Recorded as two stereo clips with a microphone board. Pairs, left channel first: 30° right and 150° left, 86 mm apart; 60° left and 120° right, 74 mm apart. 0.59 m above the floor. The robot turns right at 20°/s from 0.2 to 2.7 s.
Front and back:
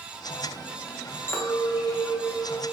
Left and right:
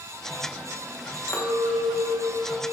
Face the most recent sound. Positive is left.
turn(degrees=50)